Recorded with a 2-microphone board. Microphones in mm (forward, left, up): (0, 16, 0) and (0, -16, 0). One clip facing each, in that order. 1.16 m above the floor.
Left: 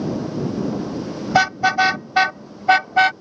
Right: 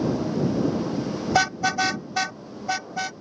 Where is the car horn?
20° left (ahead or behind); by 3.1 s 65° left (ahead or behind).